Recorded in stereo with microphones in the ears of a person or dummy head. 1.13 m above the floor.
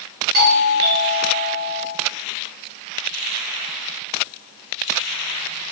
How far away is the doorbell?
About 1.0 m.